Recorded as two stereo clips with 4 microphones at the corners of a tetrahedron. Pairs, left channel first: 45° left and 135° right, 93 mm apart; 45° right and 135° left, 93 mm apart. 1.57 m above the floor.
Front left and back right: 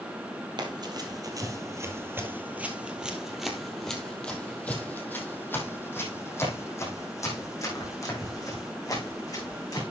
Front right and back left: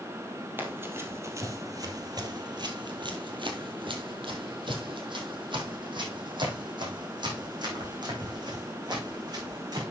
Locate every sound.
0.6 s running footsteps: 160° right, 3 m; by 9.8 s 95° left, 7.5 m